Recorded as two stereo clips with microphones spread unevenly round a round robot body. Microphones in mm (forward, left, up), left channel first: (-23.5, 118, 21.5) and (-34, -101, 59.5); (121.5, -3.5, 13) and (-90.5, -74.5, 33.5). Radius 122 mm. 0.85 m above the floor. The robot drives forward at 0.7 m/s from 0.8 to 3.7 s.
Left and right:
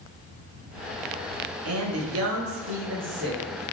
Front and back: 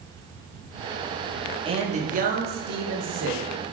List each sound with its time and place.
1.6 s a man speaking: 95° right, 1.5 m; by 3.6 s 135° right, 2 m